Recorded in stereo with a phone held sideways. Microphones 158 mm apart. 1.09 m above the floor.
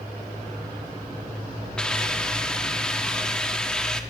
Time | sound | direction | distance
1.8 | a hiss | 5° left (ahead or behind) | 0.8 m